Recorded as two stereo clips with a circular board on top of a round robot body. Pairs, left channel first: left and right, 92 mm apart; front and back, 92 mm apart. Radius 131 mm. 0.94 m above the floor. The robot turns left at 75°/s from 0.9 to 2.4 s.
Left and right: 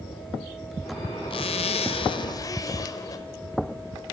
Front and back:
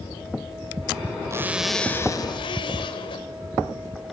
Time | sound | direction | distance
1.3 | a zipper | 120° left | 1.3 m